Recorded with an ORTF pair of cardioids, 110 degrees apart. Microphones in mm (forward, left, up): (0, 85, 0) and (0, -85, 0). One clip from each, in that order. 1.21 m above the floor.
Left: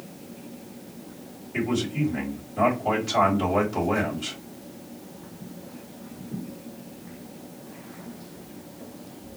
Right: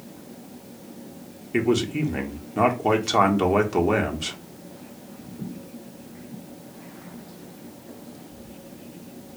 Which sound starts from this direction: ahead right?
A man speaking, at 1.5 s.